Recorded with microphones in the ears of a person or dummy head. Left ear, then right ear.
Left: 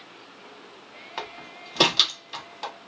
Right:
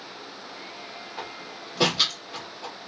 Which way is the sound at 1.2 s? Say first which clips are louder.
Left 4 dB; 65° left (ahead or behind).